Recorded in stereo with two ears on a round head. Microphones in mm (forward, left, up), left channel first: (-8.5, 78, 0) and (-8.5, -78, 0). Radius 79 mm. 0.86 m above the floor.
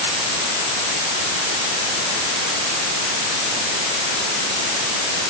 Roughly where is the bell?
No bell in this recording.